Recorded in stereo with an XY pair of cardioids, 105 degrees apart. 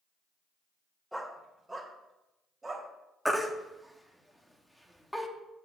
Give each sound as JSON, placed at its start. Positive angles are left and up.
{"t": 1.1, "sound": "a dog barking", "azimuth_deg": -5, "distance_m": 1.9}
{"t": 3.2, "sound": "a baby crying", "azimuth_deg": 0, "distance_m": 1.5}